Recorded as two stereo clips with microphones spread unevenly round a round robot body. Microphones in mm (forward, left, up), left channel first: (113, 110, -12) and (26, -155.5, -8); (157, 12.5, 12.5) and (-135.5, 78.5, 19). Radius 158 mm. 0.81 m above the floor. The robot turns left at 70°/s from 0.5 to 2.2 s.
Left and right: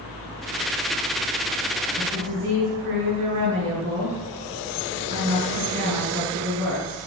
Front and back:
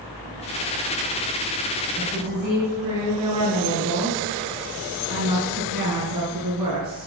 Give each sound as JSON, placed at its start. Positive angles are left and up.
{"t": 2.0, "sound": "a woman speaking", "azimuth_deg": -140, "distance_m": 7.5}